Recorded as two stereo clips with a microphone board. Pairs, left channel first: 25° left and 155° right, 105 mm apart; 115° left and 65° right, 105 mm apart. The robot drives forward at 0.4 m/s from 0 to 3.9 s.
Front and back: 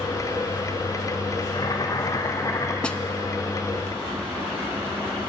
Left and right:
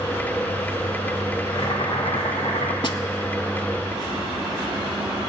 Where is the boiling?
70° left, 1.7 m; by 2.7 s 85° left, 1.6 m.